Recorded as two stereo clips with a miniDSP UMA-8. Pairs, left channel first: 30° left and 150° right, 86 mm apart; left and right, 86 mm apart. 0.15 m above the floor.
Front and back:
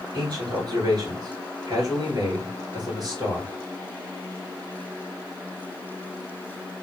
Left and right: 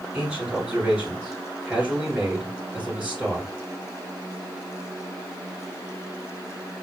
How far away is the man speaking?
About 2 m.